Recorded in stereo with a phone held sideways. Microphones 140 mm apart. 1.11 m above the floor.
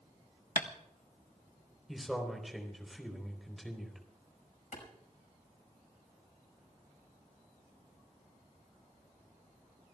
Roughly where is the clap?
Left.